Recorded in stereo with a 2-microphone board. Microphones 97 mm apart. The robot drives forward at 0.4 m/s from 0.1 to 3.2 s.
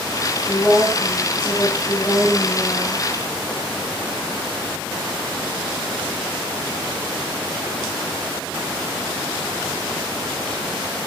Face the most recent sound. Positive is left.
turn(degrees=25)  # may be behind; listen again after turning